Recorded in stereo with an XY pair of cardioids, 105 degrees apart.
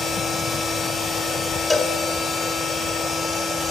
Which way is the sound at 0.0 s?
45° left.